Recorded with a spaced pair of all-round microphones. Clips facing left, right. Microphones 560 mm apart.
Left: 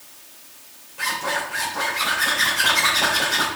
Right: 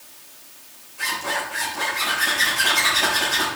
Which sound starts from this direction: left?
A zipper, at 1.0 s.